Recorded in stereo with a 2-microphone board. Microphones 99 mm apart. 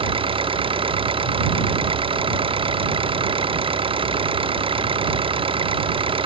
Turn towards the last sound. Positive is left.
turn(degrees=-65)  # may be behind; listen again after turning